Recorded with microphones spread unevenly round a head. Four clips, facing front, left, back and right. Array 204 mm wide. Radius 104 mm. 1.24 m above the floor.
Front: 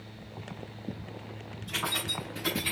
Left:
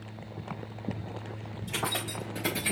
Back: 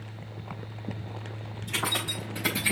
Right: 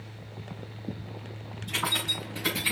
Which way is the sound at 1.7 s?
105° left.